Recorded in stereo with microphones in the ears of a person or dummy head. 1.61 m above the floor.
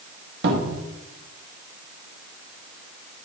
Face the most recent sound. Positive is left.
turn(degrees=-65)  # may be behind; listen again after turning